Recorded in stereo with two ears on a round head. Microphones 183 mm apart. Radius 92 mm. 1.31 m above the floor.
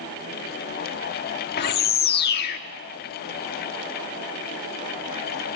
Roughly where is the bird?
Left.